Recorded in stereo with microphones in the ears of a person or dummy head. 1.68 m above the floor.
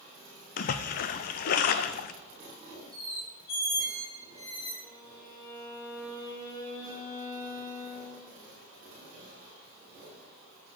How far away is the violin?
About 3 m.